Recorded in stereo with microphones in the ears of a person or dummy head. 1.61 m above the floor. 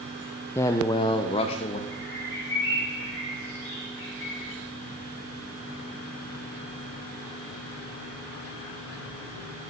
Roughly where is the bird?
Left.